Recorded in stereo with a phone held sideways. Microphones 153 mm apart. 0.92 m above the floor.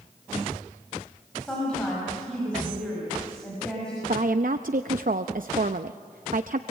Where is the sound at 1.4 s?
5° left (ahead or behind), 6.5 m.